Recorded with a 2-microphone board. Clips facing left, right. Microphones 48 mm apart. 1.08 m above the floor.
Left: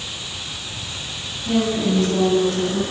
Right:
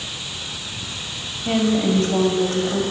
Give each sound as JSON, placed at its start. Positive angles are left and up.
{"t": 1.4, "sound": "a woman speaking", "side_deg": -55, "distance_m": 6.5}